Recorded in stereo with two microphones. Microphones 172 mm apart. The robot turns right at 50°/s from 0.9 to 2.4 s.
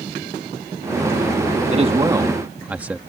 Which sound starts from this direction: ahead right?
A man speaking, at 1.7 s.